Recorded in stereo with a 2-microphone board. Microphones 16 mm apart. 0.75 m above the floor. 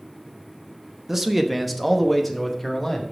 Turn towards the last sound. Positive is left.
turn(degrees=15)  # may be behind; listen again after turning